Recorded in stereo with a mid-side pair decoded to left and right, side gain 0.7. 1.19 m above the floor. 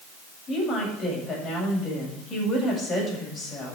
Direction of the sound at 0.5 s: 35° left.